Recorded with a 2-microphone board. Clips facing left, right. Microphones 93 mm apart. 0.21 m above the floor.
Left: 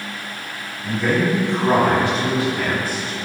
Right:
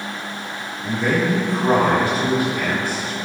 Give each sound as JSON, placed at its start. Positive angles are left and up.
{"t": 0.8, "sound": "a man speaking", "side_deg": -40, "distance_m": 1.3}